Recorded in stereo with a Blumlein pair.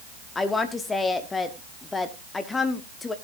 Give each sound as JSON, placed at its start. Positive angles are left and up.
{"t": 0.3, "sound": "a woman speaking", "azimuth_deg": 15, "distance_m": 0.9}